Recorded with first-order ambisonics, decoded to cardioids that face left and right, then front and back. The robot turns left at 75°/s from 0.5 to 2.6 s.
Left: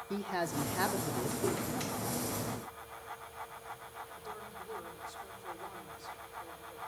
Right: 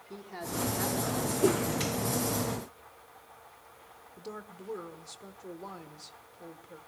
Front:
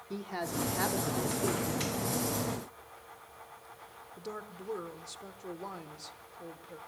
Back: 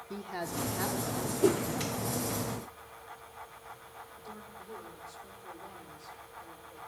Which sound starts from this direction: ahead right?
A woman speaking, at 4.2 s.